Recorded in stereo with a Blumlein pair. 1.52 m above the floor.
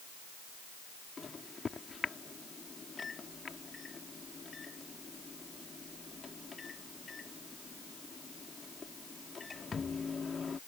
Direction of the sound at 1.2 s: 15° left.